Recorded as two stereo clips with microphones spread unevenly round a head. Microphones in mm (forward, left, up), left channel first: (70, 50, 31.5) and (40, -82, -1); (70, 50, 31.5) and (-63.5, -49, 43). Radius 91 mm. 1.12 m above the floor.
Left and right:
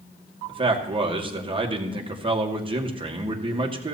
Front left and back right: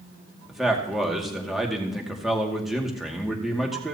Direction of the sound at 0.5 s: 55° right.